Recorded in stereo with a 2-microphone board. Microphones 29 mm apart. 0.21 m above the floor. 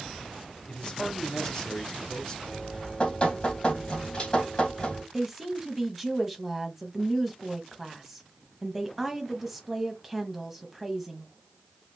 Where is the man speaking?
25° left (ahead or behind), 1.0 m.